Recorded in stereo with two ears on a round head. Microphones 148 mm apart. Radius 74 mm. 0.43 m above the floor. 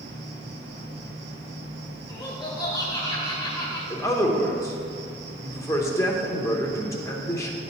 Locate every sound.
0.0 s an insect: 80° right, 1.4 m
2.1 s laughter: 25° left (ahead or behind), 1.8 m
3.9 s a man speaking: 20° left (ahead or behind), 0.8 m